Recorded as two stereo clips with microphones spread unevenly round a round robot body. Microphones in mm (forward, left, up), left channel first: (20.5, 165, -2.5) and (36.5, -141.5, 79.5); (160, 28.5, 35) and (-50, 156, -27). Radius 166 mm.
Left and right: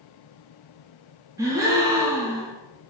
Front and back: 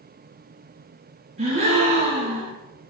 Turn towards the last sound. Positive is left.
turn(degrees=180)